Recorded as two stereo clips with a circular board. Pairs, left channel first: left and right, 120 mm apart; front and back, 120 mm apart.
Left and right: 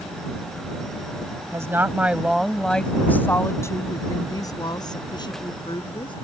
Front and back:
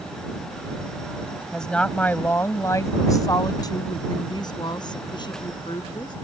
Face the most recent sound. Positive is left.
turn(degrees=45)